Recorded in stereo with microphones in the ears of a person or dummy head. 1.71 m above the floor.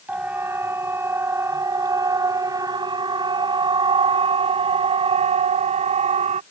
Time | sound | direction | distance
0.1 | a siren | 10° right (ahead or behind) | ?